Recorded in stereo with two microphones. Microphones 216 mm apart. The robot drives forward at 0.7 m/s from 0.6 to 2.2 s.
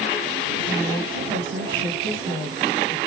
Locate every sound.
0.7 s a woman speaking: 20° right (ahead or behind), 1.5 m; by 3.0 s 15° right (ahead or behind), 2 m